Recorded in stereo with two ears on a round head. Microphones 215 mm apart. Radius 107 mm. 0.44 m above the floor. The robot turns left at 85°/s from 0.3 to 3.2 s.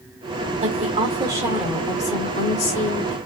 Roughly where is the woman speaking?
Right.